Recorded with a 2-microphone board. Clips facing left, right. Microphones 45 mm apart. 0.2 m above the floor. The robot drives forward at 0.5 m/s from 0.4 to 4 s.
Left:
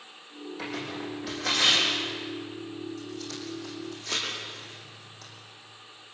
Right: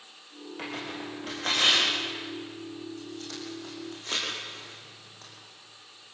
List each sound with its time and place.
0.6 s tearing paper: 40° right (ahead or behind), 9 m; by 5.3 s 35° right (ahead or behind), 10.5 m